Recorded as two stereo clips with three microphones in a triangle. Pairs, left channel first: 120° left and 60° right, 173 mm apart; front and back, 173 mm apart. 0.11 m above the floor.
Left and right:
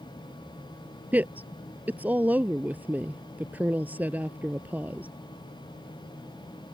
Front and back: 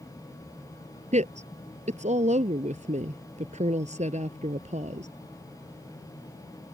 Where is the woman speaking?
140° right.